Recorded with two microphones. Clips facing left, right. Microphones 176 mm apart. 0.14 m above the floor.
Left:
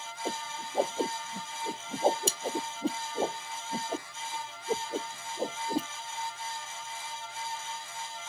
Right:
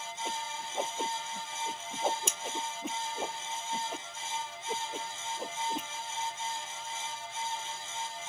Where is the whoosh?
30° left (ahead or behind).